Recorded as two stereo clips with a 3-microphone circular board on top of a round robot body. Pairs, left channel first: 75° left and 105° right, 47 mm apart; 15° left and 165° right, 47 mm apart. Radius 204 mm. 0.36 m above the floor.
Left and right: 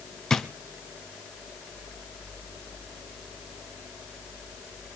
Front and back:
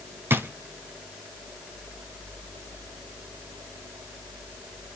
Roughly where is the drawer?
Behind left.